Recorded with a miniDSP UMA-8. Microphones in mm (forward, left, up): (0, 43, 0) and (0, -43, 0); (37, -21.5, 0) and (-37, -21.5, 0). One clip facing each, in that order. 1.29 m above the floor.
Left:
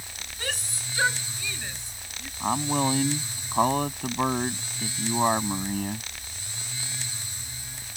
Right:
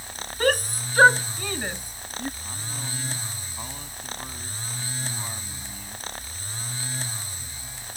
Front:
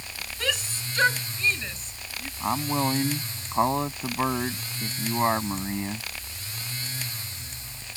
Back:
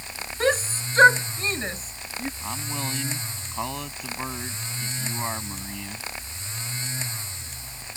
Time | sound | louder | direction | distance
0.4 | a shout | right 13 dB, back 8 dB | 125° right | ?
2.4 | a man speaking | left 14 dB, front 7 dB | 60° left | ?